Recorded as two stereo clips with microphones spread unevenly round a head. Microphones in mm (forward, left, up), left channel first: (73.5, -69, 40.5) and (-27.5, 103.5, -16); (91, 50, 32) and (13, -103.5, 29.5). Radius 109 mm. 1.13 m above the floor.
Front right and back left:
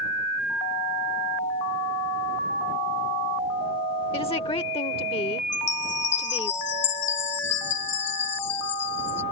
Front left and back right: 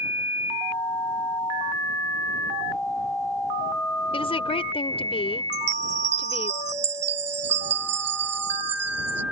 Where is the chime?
105° right.